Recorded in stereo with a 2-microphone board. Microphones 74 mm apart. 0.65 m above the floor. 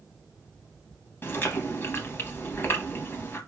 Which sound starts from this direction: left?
Chewing, at 1.2 s.